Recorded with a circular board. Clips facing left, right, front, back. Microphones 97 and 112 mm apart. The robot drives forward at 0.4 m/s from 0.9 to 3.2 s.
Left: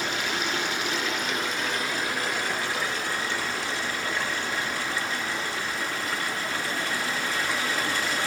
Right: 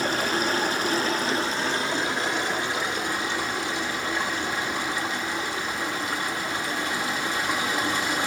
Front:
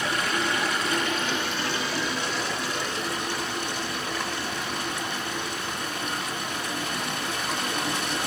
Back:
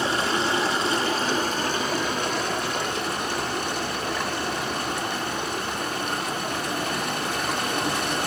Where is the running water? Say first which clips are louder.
Right 4 dB, back 3 dB; 125° right, 0.8 m; by 8.3 s 160° right, 1.5 m.